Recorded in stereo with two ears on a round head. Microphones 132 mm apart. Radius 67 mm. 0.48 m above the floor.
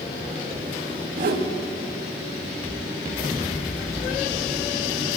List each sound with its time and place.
1.2 s a whoosh: 65° right (ahead or behind), 0.5 m